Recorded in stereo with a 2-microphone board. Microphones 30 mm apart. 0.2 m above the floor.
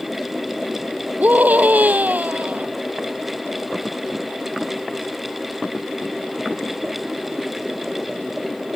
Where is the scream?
65° right (ahead or behind).